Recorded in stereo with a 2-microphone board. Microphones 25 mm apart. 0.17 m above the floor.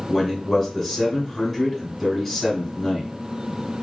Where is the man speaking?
5° left (ahead or behind), 1.6 m.